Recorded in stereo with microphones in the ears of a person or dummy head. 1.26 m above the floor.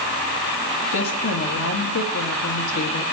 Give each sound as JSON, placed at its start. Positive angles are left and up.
{"t": 0.9, "sound": "a woman speaking", "side_deg": 85, "distance_m": 1.7}